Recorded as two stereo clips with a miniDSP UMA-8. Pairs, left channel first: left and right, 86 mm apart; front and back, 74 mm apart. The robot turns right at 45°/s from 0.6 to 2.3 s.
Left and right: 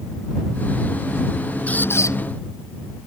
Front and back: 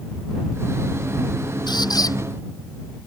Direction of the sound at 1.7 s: 15° left.